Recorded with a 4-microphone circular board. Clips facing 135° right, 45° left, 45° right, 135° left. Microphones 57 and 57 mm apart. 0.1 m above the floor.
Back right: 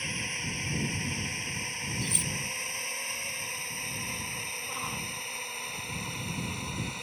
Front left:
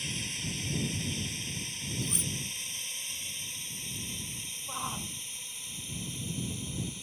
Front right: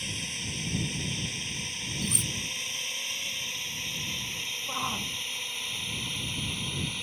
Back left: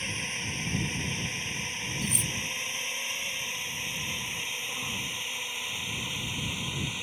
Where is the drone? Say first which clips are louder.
Back right 4 dB, back left 3 dB; 175° right; by 7.0 s 150° right.